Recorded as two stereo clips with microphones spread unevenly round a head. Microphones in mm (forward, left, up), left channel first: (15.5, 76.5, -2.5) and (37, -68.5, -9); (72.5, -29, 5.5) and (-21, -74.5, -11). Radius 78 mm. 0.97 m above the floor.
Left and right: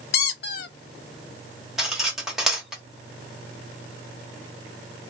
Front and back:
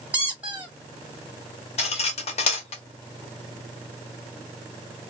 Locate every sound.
0.1 s a squeak: 120° left, 0.7 m
1.8 s cutlery clinking: 5° left, 1.1 m